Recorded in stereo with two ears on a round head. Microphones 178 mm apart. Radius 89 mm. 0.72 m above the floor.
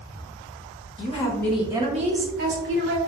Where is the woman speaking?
35° left (ahead or behind), 0.7 m; by 3.0 s 65° right (ahead or behind), 1.3 m.